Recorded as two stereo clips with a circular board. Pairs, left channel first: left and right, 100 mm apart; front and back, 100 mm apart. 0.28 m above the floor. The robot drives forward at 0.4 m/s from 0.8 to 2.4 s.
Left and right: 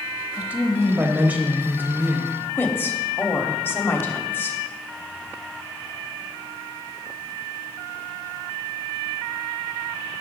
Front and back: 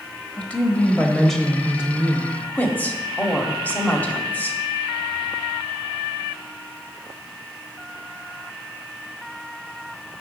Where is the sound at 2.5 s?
50° left, 1.0 m.